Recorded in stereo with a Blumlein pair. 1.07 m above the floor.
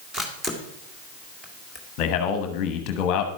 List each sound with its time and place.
0.1 s a camera shutter: 10° right, 2 m
2.0 s a man speaking: 40° left, 1.0 m